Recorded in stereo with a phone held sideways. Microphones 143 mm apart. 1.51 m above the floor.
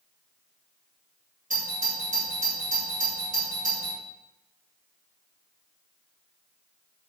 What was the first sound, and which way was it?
A doorbell, 70° right (ahead or behind).